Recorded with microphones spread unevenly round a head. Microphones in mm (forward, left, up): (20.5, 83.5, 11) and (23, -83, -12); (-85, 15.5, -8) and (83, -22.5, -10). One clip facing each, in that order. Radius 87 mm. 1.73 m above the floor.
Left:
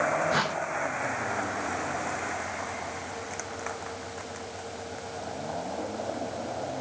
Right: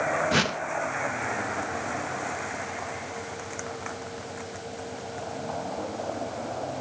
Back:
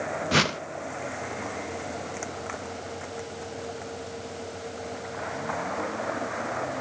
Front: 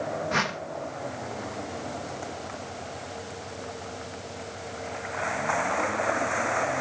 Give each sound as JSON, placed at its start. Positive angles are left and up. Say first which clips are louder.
{"t": 0.3, "sound": "a whoosh", "louder": "right 2 dB, back 4 dB", "azimuth_deg": -150, "distance_m": 0.5}